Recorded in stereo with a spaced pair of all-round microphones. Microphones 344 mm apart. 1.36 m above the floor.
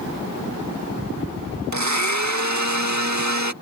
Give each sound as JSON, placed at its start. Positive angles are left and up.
{"t": 1.7, "sound": "a blender", "side_deg": -55}